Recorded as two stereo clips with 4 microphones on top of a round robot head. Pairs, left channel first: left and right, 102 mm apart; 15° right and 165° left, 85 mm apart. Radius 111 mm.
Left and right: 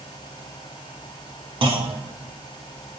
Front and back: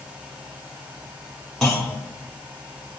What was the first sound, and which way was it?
A clunk, 100° right.